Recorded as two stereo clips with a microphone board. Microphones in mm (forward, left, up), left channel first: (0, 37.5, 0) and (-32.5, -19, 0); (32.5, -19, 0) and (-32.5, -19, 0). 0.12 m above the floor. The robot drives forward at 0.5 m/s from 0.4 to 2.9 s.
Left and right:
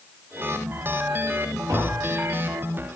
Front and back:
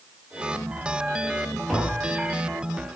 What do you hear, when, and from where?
1.7 s tapping: 90° right, 7.5 m